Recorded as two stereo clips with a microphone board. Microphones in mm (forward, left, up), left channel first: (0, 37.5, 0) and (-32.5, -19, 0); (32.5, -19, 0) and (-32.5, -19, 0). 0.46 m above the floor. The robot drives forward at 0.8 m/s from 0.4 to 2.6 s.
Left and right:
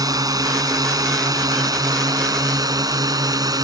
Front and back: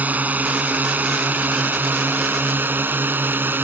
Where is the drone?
115° right; by 3.6 s 120° right.